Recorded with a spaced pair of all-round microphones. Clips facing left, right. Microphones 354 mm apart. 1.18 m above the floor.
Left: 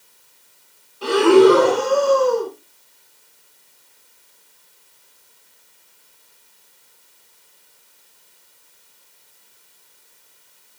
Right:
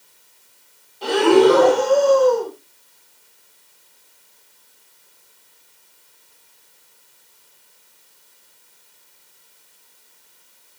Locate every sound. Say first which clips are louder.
1.0 s breathing: left 2 dB; 15° left (ahead or behind), 6.5 m